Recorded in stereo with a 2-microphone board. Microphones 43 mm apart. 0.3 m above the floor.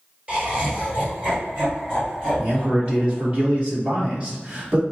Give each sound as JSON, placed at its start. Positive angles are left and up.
{"t": 0.3, "sound": "laughter", "side_deg": -35, "distance_m": 1.6}
{"t": 2.4, "sound": "a man speaking", "side_deg": -30, "distance_m": 1.6}